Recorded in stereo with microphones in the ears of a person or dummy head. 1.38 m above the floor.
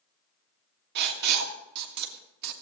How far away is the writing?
About 1.5 m.